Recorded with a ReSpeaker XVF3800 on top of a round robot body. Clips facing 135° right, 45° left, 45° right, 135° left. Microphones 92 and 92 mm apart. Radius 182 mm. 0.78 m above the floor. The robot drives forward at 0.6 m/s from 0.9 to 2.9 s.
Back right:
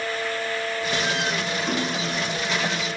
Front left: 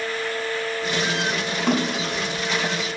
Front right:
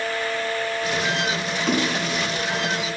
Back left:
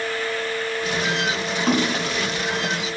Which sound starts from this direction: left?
A splash, at 1.7 s.